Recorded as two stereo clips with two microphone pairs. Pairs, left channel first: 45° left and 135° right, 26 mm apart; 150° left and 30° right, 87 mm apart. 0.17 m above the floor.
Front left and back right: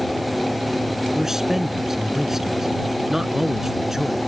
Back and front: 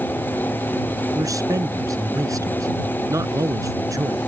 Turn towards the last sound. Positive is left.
turn(degrees=-65)